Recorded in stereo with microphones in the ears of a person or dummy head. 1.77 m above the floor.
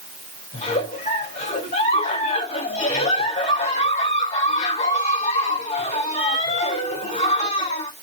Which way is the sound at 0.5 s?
40° left (ahead or behind).